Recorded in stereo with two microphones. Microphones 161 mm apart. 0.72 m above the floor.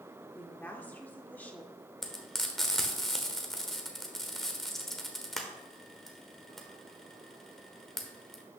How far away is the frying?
About 1.3 m.